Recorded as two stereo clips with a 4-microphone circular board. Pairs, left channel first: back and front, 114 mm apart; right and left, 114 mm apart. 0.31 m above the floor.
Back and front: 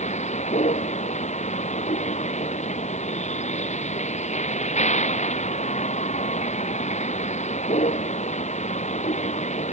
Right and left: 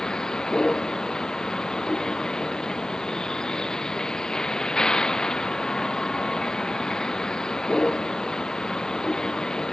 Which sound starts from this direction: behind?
A vehicle, at 0.0 s.